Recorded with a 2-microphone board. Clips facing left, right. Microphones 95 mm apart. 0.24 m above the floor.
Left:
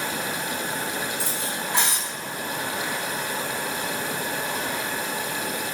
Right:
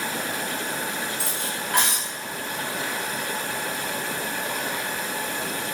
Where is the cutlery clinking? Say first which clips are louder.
Left 1 dB; 65° right (ahead or behind), 1.4 m.